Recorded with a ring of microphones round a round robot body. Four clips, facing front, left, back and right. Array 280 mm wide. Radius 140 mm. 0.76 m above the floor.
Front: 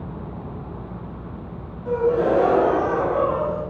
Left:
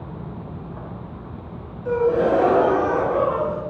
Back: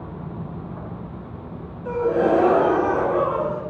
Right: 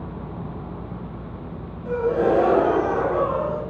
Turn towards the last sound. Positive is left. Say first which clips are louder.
# left 2 dB, even
turn(degrees=170)